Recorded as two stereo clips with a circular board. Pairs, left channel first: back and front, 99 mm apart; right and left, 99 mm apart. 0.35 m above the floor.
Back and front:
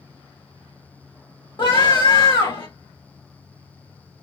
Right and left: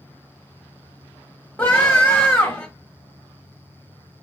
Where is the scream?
160° right, 1.9 m.